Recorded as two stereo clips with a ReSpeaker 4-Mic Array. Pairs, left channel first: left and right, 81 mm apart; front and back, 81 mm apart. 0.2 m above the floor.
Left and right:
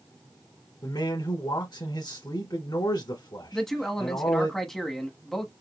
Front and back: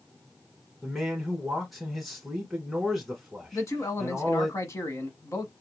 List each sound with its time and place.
0.8 s a man speaking: 90° left, 1.5 m
3.5 s a man speaking: 10° left, 1.3 m